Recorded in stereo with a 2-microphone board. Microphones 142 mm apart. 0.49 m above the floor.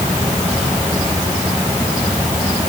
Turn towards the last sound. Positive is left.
No sound to turn to.